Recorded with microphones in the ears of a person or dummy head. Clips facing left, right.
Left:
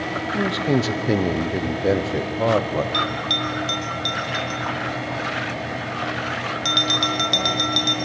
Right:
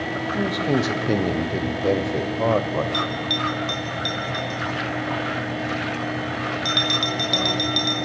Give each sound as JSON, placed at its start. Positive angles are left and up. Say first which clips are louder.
{"t": 0.3, "sound": "a man speaking", "louder": "left 1 dB", "side_deg": 10, "distance_m": 0.9}
{"t": 2.9, "sound": "a bell", "louder": "even", "side_deg": 0, "distance_m": 1.5}